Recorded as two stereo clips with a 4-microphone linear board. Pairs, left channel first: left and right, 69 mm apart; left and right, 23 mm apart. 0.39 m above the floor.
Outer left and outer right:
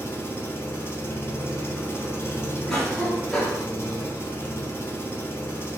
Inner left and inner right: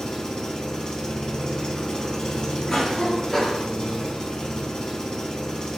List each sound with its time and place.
0.0 s an engine running: 40° left (ahead or behind), 0.8 m
2.7 s a cough: 15° left (ahead or behind), 0.9 m